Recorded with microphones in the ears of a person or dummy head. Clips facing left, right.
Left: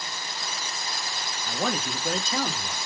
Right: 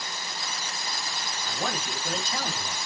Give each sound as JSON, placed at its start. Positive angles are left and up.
{"t": 1.5, "sound": "a man speaking", "side_deg": 55, "distance_m": 1.4}